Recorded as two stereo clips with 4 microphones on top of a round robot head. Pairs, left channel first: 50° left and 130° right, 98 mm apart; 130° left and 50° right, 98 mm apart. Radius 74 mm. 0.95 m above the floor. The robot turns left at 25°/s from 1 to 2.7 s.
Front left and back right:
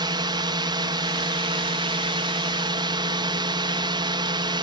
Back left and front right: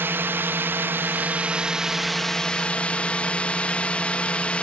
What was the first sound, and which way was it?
A drone, 110° right.